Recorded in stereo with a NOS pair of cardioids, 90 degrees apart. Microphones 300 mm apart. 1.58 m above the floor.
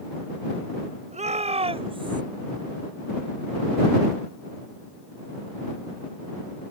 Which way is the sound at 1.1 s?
25° right.